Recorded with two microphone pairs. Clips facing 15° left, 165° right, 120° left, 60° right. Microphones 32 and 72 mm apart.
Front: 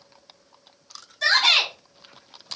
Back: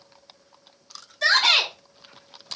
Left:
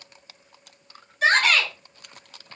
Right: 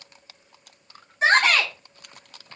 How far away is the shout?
About 1.0 m.